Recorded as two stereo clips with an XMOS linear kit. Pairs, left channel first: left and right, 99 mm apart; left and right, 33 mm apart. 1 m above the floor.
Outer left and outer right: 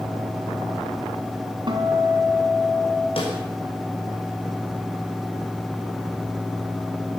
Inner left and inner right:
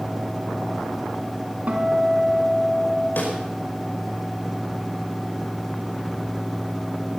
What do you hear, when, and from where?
1.7 s a guitar: 50° right (ahead or behind), 3.5 m
3.2 s a snare drum: 70° left (ahead or behind), 5.5 m